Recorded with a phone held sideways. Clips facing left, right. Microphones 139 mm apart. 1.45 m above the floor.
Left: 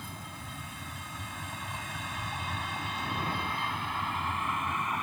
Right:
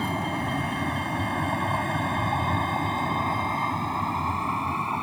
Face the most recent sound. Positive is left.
turn(degrees=-35)  # may be behind; listen again after turning